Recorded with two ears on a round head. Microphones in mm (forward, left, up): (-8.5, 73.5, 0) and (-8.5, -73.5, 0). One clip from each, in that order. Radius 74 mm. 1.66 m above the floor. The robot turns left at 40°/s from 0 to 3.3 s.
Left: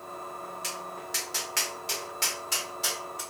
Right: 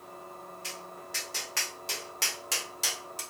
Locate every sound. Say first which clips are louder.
0.6 s tapping: left 2 dB; 40° left (ahead or behind), 1.3 m; by 3.2 s 65° right (ahead or behind), 1.3 m